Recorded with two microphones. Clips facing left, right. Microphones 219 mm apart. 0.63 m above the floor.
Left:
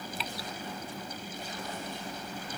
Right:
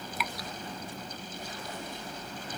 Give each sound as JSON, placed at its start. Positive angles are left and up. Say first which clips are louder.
{"t": 0.2, "sound": "dripping", "louder": "right 3 dB", "side_deg": 30}